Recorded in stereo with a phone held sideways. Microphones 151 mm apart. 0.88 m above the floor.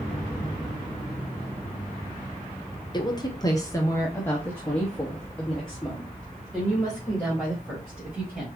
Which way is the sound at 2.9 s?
30° left (ahead or behind).